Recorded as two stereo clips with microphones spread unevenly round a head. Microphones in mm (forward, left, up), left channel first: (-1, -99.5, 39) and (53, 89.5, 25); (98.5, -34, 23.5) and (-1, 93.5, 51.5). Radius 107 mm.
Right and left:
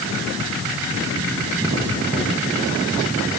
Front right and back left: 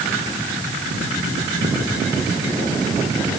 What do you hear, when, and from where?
Only background noise.